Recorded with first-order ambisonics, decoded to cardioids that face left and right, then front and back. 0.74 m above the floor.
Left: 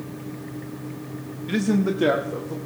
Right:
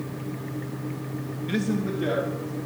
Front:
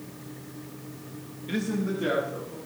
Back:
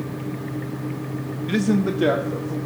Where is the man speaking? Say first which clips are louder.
Left 5 dB, back 7 dB; 175° right, 0.5 m; by 2.5 s 135° left, 1.9 m.